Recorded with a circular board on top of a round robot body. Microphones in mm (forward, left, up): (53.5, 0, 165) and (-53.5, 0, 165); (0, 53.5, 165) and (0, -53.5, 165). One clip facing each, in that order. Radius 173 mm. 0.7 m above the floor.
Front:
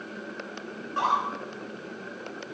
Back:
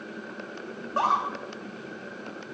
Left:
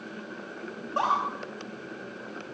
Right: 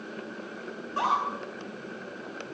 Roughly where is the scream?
Behind left.